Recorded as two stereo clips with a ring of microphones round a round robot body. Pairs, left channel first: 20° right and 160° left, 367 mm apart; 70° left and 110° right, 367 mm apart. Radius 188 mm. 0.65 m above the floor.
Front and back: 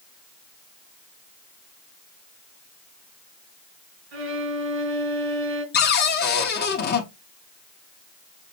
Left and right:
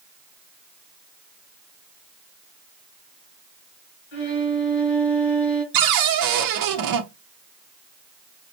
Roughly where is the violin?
Behind left.